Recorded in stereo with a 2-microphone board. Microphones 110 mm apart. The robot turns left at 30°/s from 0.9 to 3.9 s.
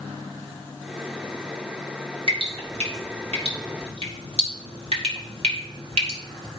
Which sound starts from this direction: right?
Dripping, at 2.3 s.